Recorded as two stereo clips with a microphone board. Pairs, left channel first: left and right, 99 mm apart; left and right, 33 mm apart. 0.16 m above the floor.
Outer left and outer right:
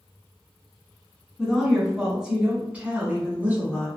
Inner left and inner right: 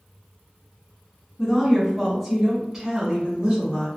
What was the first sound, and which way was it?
A woman speaking, centre (ahead or behind).